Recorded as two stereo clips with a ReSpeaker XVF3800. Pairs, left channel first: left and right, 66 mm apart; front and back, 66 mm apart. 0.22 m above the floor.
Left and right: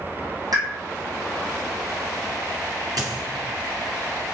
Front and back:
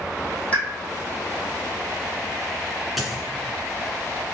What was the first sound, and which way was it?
A pop, 70° right.